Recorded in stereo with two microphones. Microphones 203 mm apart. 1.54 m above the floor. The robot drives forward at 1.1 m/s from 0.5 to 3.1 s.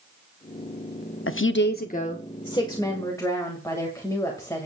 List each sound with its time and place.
1.3 s a woman speaking: 85° left, 0.6 m; by 4.7 s 15° left (ahead or behind), 2 m